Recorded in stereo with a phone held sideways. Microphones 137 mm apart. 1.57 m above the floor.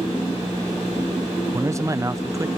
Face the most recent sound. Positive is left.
turn(degrees=-25)  # may be behind; listen again after turning